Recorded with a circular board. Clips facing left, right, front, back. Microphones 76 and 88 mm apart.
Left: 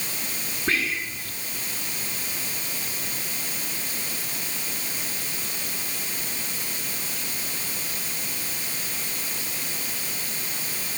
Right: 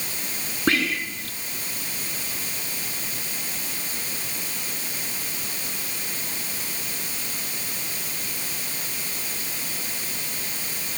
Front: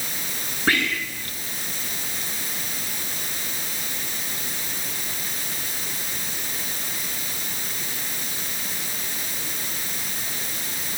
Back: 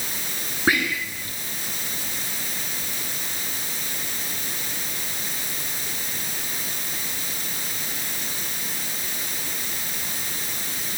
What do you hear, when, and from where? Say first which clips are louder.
0.7 s whispering: right 4 dB, back 1 dB; 105° right, 3 m